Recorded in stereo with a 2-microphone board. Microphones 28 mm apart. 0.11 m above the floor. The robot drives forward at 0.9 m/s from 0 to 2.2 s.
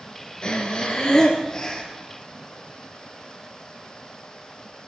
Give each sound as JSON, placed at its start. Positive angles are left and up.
{"t": 0.4, "sound": "breathing", "side_deg": 40, "distance_m": 2.0}